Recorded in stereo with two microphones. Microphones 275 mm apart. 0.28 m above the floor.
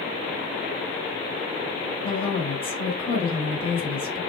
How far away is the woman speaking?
About 1.3 m.